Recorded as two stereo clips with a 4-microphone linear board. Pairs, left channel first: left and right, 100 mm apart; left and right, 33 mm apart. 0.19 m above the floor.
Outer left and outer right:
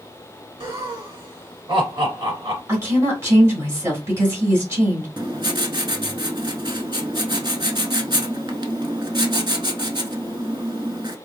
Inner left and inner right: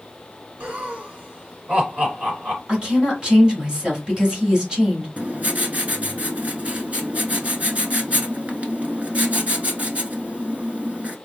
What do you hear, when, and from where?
0.6 s laughter: 45° right (ahead or behind), 1.4 m
2.7 s a woman speaking: 25° right (ahead or behind), 1.8 m
5.2 s writing: 45° right (ahead or behind), 0.6 m